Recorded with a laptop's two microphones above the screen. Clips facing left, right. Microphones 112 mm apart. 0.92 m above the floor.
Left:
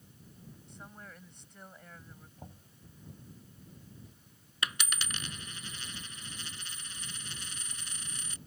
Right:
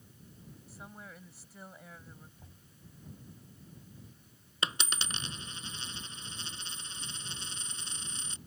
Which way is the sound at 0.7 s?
5° right (ahead or behind).